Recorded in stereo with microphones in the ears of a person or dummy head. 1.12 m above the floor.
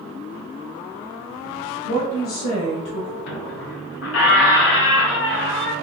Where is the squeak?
75° left (ahead or behind), 0.7 m.